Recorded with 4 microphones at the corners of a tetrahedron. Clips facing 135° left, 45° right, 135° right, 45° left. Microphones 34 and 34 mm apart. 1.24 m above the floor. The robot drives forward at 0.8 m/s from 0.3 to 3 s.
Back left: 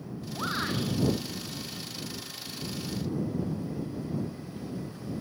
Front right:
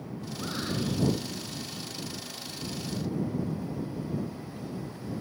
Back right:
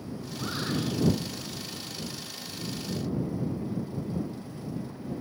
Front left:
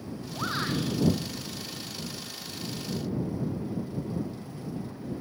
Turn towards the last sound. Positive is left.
turn(degrees=120)